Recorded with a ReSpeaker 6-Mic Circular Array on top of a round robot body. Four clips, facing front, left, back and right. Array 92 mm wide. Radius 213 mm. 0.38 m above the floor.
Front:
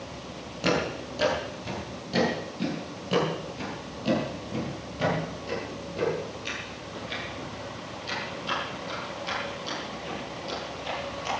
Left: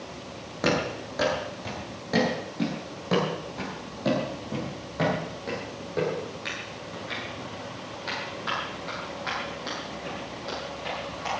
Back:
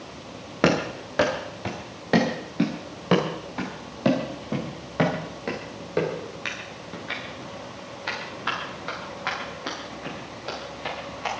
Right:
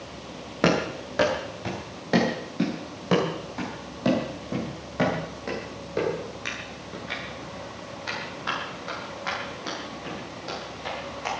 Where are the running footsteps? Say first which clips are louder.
Right 3 dB, back 4 dB; 155° right, 3.5 m; by 11.4 s 170° right, 11 m.